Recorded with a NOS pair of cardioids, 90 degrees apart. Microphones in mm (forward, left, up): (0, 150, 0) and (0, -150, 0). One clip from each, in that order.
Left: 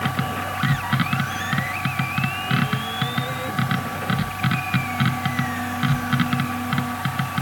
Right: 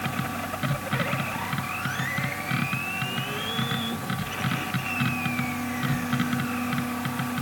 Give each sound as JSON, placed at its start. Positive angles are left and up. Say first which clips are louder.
{"t": 0.0, "sound": "a machine running", "louder": "left 5 dB", "azimuth_deg": 45}